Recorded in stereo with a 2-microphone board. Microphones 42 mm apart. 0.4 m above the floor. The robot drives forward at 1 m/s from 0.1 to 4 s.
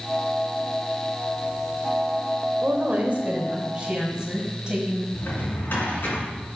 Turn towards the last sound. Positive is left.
turn(degrees=50)  # may be behind; listen again after turning